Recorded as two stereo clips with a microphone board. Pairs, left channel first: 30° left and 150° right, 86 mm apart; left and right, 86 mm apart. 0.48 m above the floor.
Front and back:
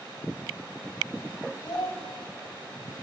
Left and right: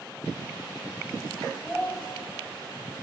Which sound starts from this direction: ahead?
A child speaking, at 1.6 s.